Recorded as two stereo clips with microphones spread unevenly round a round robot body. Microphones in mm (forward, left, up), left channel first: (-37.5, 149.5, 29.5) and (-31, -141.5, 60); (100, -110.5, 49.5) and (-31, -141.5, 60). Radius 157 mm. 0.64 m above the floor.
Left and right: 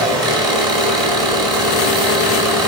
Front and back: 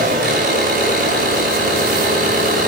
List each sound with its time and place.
0.0 s an engine running: 165° right, 4 m